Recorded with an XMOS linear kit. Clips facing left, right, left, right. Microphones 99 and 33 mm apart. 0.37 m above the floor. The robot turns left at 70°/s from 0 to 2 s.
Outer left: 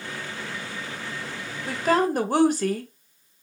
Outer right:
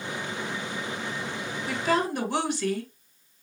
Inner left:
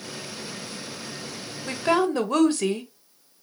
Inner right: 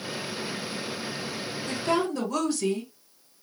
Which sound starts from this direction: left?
A woman speaking, at 1.7 s.